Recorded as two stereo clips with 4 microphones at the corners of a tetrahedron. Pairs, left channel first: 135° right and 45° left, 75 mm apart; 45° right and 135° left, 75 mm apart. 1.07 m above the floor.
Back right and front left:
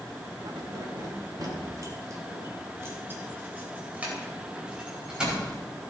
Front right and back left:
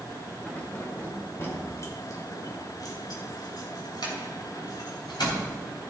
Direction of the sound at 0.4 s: 30° left.